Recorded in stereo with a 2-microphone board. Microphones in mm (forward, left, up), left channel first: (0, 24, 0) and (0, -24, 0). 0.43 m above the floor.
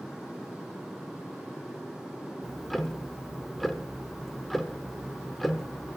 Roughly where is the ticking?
Centre.